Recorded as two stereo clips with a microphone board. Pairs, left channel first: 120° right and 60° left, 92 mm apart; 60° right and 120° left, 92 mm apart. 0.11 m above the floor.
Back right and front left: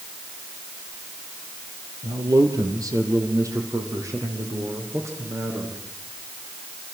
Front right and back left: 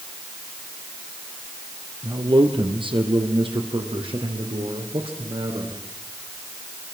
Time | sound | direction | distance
2.0 | a man speaking | 100° left | 3.5 m